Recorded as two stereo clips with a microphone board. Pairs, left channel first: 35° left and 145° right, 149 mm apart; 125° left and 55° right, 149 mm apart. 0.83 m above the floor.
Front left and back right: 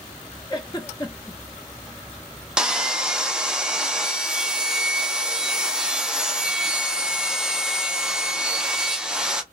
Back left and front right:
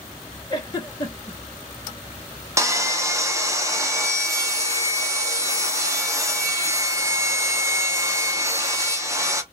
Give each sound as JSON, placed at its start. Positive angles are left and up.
{"t": 0.5, "sound": "a giggle", "azimuth_deg": 75, "distance_m": 0.8}
{"t": 2.6, "sound": "sawing", "azimuth_deg": -70, "distance_m": 0.6}